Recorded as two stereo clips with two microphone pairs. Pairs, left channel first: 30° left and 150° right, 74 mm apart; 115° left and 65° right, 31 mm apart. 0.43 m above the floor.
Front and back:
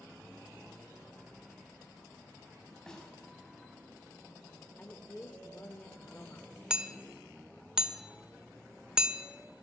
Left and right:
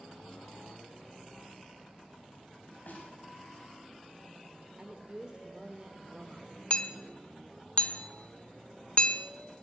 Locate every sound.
2.9 s a snare drum: 110° left, 3.5 m
4.8 s a woman speaking: 20° right, 1.1 m
6.7 s hammering: 135° left, 1.1 m